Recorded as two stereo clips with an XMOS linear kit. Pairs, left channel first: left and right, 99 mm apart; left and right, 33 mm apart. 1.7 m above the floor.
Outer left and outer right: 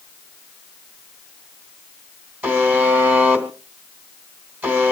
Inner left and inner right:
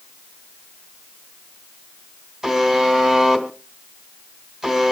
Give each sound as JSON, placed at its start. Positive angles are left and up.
{"t": 2.4, "sound": "a buzzer", "side_deg": -20, "distance_m": 3.0}